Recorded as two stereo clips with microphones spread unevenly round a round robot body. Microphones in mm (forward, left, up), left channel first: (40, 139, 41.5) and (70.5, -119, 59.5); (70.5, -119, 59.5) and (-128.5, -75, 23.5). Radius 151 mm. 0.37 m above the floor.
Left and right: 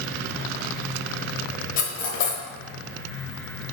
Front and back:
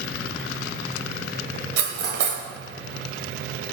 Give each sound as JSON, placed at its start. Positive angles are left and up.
{"t": 1.8, "sound": "cutlery clinking", "azimuth_deg": 150, "distance_m": 1.1}